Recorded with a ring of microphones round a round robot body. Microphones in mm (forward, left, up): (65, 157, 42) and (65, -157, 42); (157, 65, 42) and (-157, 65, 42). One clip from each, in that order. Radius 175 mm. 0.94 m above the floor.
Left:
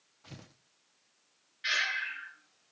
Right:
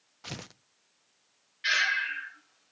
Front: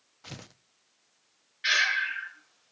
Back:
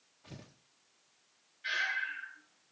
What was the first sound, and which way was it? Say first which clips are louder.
Tearing paper: right 11 dB, front 9 dB; 50° right.